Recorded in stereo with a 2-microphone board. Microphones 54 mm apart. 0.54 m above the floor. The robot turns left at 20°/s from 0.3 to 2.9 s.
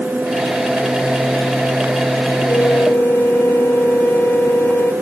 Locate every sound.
2.5 s a flute: 50° left (ahead or behind); by 4.9 s 40° left (ahead or behind)